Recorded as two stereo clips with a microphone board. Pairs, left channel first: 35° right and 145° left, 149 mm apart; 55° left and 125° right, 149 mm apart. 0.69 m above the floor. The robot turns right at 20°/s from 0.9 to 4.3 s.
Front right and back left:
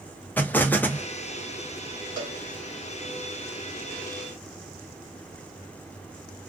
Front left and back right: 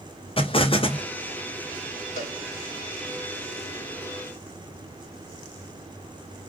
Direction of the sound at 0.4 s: 40° left.